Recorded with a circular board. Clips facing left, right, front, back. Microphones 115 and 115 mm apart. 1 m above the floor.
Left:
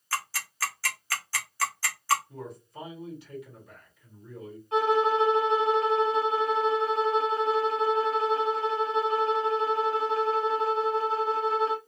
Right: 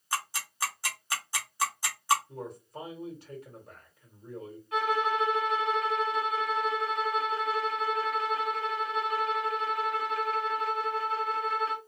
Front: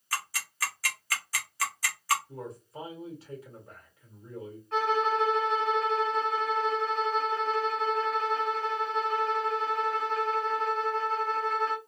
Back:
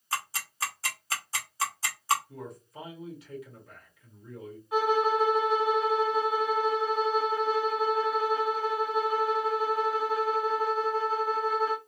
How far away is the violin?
About 0.7 m.